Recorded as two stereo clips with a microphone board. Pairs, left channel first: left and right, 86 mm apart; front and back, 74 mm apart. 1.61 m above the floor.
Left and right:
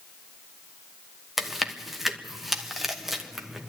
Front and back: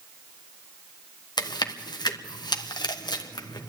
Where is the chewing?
5° right, 1.2 m.